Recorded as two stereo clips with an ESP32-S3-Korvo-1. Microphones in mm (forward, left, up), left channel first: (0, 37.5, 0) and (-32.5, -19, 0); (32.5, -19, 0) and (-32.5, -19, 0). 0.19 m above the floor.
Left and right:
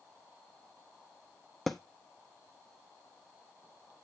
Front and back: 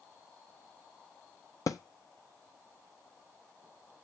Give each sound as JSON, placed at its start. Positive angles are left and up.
{"t": 1.7, "sound": "a thud", "azimuth_deg": -25, "distance_m": 0.6}